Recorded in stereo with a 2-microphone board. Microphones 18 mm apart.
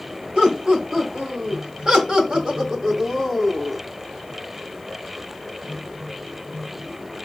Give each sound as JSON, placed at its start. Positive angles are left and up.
{"t": 0.3, "sound": "laughter", "side_deg": -70, "distance_m": 2.5}